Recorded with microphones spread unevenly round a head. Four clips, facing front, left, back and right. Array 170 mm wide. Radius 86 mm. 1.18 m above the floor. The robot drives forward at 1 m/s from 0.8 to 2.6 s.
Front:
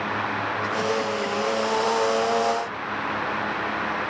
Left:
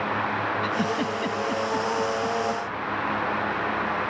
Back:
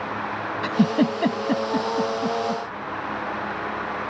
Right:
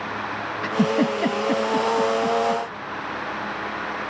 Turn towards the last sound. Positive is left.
turn(degrees=-155)